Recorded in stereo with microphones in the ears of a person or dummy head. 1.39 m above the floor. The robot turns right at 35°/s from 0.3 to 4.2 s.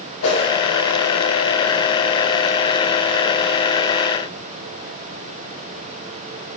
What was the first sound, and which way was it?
A whoosh, 80° left.